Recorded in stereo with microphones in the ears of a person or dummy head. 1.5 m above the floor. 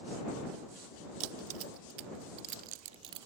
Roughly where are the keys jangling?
Right.